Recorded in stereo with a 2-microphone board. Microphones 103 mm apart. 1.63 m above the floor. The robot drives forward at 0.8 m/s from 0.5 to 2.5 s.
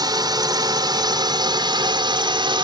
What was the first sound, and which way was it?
A drone, 40° right (ahead or behind).